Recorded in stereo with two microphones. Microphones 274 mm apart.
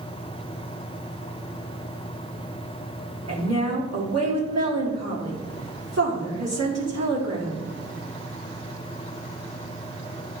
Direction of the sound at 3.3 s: 70° right (ahead or behind).